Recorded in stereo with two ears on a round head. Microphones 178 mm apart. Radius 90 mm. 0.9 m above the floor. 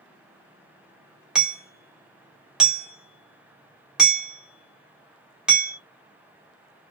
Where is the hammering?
5° right (ahead or behind), 0.9 m.